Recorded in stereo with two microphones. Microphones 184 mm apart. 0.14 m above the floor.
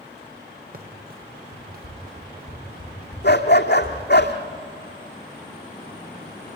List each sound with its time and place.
0.7 s running footsteps: 55° right (ahead or behind), 2.5 m; by 4.2 s 65° right (ahead or behind), 5 m
3.2 s a dog barking: 65° left (ahead or behind), 2 m